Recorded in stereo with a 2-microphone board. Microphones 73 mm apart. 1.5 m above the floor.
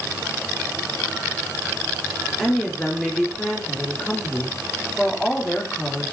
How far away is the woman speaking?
About 3 m.